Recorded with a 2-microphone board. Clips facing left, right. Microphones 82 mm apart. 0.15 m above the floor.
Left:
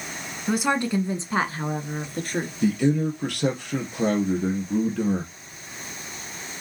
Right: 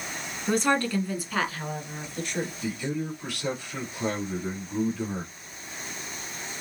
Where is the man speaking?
65° left (ahead or behind), 3 m.